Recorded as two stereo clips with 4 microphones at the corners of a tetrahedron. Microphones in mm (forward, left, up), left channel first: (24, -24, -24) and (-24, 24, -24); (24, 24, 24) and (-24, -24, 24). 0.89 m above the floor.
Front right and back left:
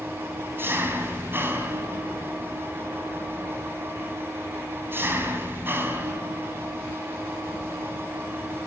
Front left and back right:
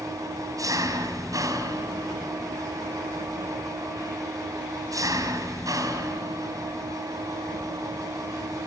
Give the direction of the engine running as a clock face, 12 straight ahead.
6 o'clock.